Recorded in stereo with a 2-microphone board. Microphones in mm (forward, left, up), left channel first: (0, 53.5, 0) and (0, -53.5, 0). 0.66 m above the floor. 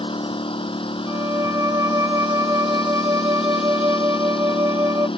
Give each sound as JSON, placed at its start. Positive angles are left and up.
{"t": 0.0, "sound": "a lawn mower", "side_deg": 55}
{"t": 1.1, "sound": "a violin", "side_deg": -30}